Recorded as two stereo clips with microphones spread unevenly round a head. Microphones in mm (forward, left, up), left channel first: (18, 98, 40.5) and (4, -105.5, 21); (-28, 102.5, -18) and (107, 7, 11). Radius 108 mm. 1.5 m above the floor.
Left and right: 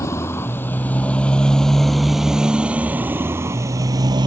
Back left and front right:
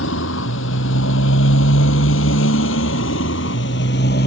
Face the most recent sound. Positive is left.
turn(degrees=-165)